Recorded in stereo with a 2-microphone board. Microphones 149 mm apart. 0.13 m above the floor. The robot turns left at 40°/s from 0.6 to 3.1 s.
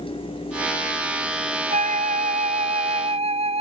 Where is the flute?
70° right; by 3.6 s 125° right.